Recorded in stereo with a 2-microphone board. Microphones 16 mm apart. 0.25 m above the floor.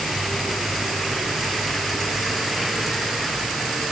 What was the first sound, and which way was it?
Only background noise.